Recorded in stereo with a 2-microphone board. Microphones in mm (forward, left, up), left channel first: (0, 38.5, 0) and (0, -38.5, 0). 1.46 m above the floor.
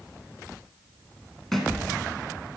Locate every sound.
1.5 s a thud: 5° left (ahead or behind), 1.9 m